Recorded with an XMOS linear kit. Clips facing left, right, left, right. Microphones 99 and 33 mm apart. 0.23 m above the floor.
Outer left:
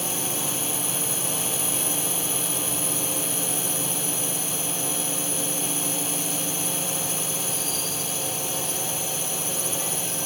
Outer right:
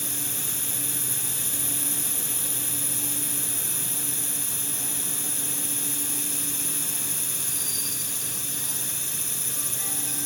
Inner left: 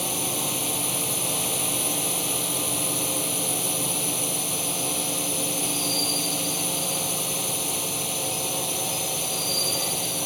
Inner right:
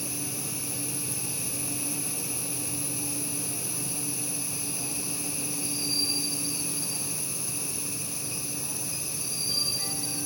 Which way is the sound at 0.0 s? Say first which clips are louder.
Outer left 8 dB, inner left 8 dB; 65° left (ahead or behind).